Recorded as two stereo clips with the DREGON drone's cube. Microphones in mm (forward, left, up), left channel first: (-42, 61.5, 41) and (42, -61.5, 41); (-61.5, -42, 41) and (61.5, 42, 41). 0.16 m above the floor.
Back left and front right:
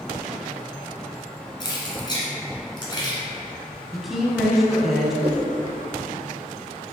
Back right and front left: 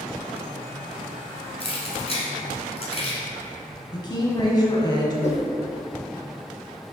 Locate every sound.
1.6 s keys jangling: 175° left, 1.6 m
3.9 s a woman speaking: 145° right, 1.2 m
5.2 s a whoosh: 105° right, 1.5 m